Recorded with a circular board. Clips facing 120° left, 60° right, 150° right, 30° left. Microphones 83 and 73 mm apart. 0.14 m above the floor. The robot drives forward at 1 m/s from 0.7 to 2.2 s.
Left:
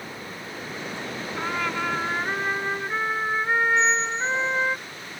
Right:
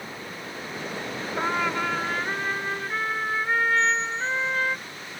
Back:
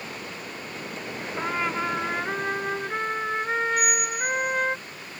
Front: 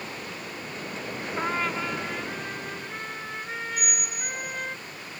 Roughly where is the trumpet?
Ahead right.